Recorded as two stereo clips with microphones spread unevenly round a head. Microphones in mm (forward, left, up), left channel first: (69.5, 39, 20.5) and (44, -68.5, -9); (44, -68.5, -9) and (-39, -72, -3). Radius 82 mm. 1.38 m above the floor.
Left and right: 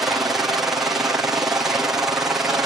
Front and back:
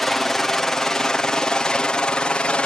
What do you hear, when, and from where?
0.0 s a helicopter: 80° right; by 2.7 s 55° right